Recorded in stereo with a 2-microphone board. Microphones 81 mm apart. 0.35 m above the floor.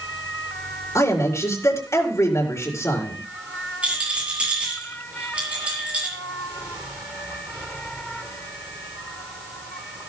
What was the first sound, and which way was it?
A man speaking, 40° left (ahead or behind).